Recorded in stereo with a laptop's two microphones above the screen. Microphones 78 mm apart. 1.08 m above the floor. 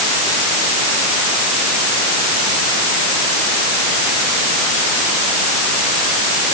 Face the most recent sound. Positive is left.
No sound to turn to.